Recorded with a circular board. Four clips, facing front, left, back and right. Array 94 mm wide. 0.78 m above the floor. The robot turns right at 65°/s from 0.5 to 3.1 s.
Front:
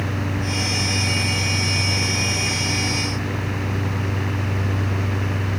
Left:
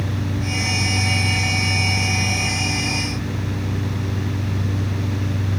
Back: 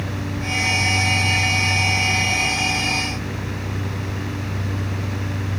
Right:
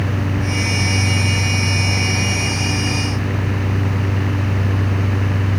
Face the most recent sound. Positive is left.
No sound to turn to.